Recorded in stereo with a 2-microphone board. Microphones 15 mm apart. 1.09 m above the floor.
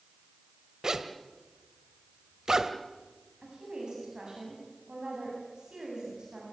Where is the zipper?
45° right (ahead or behind), 1.4 m.